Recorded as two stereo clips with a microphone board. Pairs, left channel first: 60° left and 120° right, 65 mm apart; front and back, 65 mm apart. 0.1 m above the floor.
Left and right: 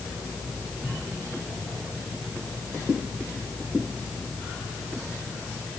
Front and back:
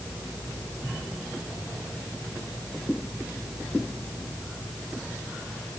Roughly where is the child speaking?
I don't hear a child speaking.